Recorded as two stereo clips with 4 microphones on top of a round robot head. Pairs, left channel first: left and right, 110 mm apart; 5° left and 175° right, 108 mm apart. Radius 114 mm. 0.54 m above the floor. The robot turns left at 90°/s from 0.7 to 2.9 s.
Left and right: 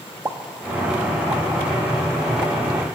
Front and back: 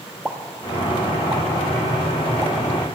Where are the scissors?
No scissors in this recording.